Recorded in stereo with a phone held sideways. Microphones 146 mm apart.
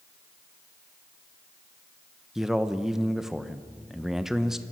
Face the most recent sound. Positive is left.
turn(degrees=-5)  # may be behind; listen again after turning